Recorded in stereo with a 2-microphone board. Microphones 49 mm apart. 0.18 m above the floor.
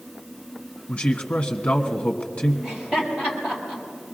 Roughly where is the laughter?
Centre.